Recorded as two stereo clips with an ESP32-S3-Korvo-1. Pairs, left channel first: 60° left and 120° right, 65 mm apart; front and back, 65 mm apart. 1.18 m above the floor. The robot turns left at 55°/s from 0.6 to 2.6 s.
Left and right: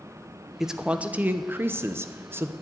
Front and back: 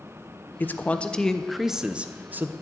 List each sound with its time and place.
0.6 s a man speaking: 40° right, 0.8 m; by 2.5 s 145° right, 0.8 m